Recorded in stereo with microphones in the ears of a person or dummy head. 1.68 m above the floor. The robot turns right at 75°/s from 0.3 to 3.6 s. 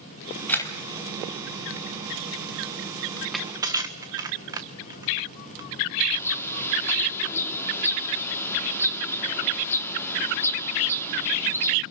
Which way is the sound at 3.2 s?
15° left (ahead or behind).